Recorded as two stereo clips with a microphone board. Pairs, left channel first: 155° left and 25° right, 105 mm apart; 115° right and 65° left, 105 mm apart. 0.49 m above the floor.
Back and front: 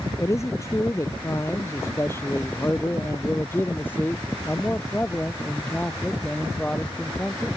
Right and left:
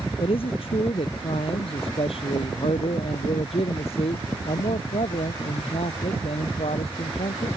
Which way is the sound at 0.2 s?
140° right.